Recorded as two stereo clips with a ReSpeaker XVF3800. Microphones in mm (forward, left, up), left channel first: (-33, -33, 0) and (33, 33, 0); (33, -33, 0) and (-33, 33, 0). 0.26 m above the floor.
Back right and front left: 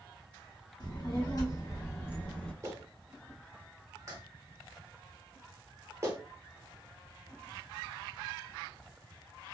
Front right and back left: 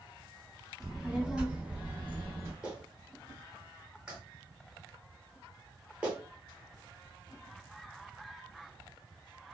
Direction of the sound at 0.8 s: 140° right.